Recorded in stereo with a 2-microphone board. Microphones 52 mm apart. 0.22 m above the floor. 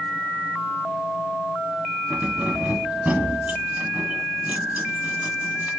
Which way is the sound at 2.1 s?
30° right (ahead or behind).